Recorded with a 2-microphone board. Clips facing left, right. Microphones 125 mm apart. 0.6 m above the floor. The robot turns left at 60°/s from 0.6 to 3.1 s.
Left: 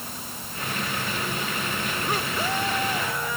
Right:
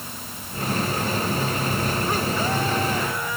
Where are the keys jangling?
No keys jangling in this recording.